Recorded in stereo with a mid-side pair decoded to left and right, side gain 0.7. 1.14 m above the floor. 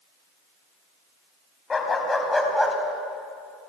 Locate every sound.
1.7 s a dog barking: 25° left, 2.5 m; by 2.8 s 5° right, 2.5 m